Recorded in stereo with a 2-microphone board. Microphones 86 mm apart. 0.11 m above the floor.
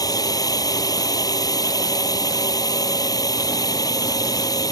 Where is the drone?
45° left (ahead or behind).